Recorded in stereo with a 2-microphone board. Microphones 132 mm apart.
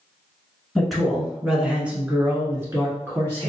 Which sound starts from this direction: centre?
A man speaking, at 0.8 s.